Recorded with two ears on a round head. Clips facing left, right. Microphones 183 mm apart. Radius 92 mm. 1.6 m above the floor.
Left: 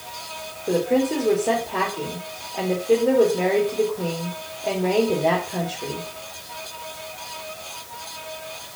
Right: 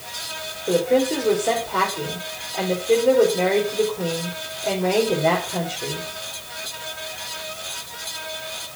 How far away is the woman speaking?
About 3 m.